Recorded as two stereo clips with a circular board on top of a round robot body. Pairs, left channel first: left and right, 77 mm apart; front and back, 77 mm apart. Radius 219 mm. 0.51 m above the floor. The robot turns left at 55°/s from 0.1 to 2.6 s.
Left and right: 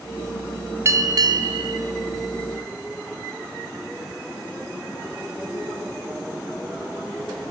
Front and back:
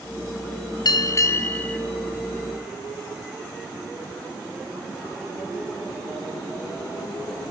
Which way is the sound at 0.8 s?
35° right.